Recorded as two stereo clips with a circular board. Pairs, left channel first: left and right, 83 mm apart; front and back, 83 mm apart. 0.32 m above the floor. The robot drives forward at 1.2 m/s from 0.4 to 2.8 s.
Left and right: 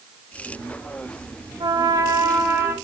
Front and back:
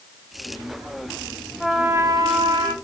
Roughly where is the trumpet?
Right.